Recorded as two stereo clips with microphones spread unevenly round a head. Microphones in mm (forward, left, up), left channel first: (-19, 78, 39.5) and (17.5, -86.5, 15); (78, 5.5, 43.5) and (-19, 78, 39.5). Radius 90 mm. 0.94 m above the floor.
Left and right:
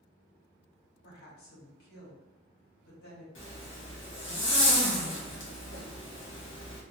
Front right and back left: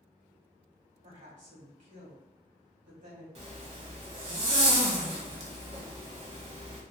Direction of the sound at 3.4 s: 115° left.